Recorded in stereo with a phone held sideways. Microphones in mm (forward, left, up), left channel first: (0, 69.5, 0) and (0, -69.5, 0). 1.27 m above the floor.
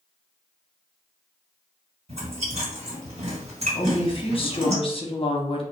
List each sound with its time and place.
2.1 s chewing: 50° right (ahead or behind), 1.6 m
3.8 s a woman speaking: 40° left (ahead or behind), 0.6 m